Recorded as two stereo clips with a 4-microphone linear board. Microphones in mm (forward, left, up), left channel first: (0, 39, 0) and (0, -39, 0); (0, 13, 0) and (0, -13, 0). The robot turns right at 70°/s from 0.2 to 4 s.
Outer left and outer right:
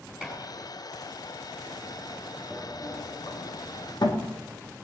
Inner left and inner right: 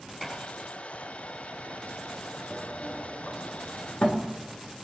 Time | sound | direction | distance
0.2 | dishes clattering | 10° right (ahead or behind) | 7.5 m
2.5 | a sliding door | 15° left (ahead or behind) | 3 m